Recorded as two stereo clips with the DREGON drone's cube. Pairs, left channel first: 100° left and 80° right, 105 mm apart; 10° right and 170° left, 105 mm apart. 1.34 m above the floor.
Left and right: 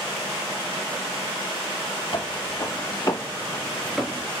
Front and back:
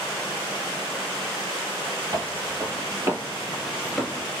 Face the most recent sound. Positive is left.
turn(degrees=-50)